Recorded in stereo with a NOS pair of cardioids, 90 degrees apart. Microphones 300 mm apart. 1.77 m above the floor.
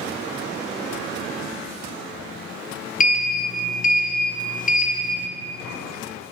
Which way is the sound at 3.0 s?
30° left.